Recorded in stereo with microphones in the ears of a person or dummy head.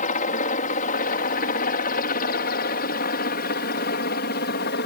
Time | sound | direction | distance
0.0 | a helicopter | 40° left (ahead or behind) | ?